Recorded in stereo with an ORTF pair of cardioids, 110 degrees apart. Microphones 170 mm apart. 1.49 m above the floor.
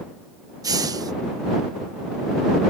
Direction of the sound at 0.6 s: 20° right.